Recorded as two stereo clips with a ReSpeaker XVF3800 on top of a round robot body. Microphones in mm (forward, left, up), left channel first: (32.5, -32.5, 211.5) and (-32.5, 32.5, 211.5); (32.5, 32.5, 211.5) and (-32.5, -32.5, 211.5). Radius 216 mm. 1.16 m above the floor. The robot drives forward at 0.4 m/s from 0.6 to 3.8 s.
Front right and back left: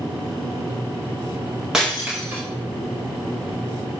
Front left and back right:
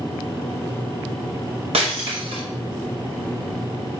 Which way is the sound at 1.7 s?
140° right.